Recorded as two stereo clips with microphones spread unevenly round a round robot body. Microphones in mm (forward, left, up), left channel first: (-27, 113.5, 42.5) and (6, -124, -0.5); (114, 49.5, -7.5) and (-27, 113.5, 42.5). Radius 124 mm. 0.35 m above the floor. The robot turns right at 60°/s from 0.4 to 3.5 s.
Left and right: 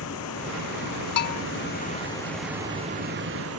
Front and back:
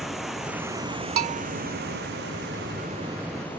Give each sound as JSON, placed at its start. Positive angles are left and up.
{"t": 0.0, "sound": "running water", "azimuth_deg": 65}
{"t": 1.2, "sound": "a bell", "azimuth_deg": 140}